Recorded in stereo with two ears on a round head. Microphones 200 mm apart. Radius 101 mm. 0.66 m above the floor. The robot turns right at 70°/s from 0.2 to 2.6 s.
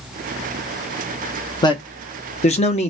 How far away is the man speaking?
About 0.7 m.